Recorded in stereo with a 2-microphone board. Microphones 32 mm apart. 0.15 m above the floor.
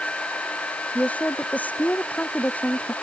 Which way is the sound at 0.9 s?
50° left (ahead or behind).